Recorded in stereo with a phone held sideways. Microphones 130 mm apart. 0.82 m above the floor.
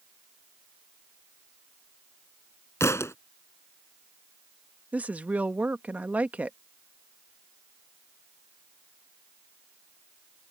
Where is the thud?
20° left (ahead or behind).